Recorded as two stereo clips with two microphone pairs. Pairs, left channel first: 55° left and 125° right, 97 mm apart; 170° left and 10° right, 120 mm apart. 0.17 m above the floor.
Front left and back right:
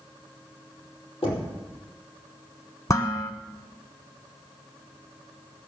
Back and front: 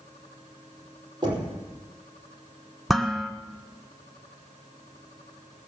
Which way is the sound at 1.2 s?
40° left.